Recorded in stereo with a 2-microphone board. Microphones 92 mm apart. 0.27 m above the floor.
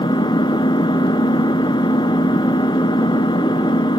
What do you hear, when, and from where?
0.0 s an engine running: 60° left (ahead or behind), 0.9 m